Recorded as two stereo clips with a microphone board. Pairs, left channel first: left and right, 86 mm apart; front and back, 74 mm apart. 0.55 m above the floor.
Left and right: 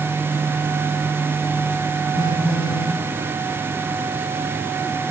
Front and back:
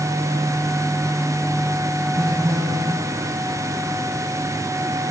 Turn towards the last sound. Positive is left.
turn(degrees=-85)